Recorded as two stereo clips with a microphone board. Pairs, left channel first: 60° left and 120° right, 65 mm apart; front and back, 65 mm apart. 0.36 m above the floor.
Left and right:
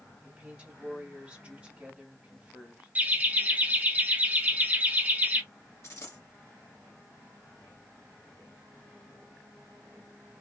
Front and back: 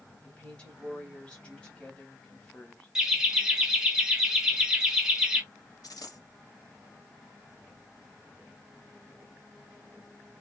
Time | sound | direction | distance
0.2 | a woman speaking | 65° right | 1.6 m
3.0 | laughter | 110° right | 1.0 m
5.8 | a dropped coin | 15° left | 1.4 m